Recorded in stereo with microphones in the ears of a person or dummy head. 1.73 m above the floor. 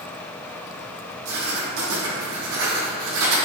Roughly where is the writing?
Right.